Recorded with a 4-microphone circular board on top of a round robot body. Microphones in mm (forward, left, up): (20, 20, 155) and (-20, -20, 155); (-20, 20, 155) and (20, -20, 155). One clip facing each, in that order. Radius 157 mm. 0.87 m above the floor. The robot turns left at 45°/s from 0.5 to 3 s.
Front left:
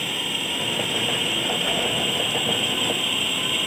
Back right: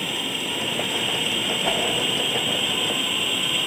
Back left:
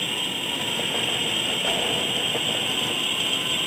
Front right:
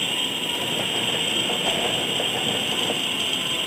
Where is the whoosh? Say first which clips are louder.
Back right 4 dB, back left 1 dB; 105° right, 3.5 m; by 1.8 s 110° right, 3.5 m.